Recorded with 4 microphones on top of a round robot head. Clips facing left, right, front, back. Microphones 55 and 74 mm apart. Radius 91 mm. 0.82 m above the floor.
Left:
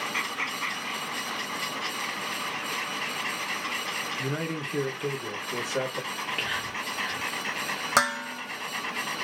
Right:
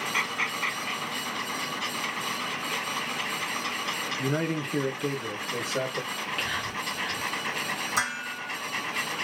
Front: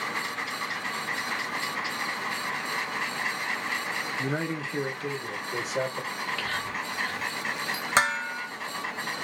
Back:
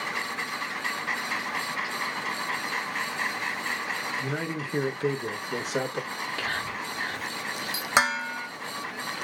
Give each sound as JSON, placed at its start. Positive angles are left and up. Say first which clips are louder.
{"t": 4.2, "sound": "a man speaking", "louder": "right 3 dB, front 1 dB", "azimuth_deg": -35, "distance_m": 0.7}
{"t": 6.1, "sound": "whispering", "louder": "even, even", "azimuth_deg": 145, "distance_m": 1.4}
{"t": 8.0, "sound": "dishes clattering", "louder": "left 8 dB, back 1 dB", "azimuth_deg": 100, "distance_m": 0.9}